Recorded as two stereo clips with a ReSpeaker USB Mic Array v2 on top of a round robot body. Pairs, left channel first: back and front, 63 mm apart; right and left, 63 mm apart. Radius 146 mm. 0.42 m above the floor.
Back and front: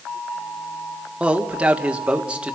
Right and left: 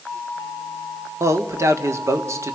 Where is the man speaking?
70° left, 1.7 m.